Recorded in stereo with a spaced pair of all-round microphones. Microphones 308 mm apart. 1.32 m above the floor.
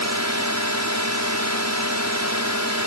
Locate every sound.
0.0 s a drone: 60° right (ahead or behind)